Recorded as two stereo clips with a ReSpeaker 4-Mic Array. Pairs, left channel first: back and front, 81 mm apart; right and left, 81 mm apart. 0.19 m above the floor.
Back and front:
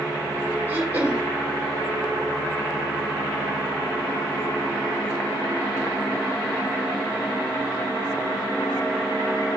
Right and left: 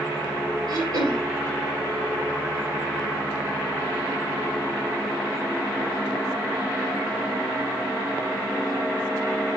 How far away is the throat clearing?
About 1.9 m.